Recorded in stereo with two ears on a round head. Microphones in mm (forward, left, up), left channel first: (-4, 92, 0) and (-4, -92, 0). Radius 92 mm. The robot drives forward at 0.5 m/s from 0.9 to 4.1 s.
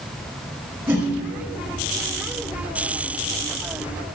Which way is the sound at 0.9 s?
10° right (ahead or behind).